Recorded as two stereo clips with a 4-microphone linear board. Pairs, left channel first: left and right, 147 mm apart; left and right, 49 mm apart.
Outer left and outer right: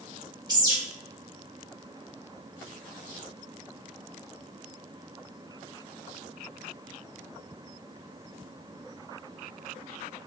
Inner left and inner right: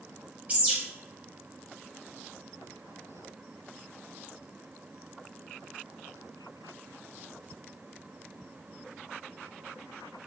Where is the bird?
30° right (ahead or behind), 1.3 m.